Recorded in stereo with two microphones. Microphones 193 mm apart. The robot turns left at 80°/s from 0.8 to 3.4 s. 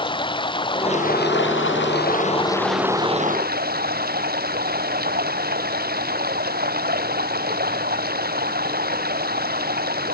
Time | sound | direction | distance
0.0 | running water | 155° left | ?